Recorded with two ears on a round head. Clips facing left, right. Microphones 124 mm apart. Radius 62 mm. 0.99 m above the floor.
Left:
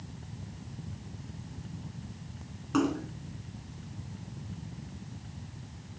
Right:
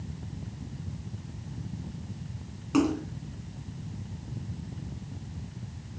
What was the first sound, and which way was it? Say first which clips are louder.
A splash: right 3 dB; 15° right (ahead or behind).